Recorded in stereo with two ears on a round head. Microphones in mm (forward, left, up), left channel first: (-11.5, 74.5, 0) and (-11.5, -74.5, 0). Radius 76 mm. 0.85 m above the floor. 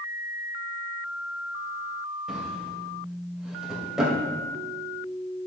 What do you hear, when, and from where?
2.3 s a drawer: 5° right (ahead or behind), 2.5 m